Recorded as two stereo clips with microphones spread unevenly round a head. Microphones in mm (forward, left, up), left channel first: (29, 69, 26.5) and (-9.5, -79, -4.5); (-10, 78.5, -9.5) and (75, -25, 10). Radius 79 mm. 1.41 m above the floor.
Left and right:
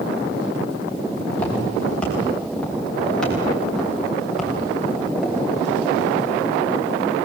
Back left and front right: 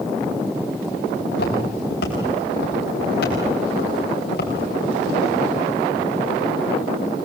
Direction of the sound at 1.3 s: 155° left.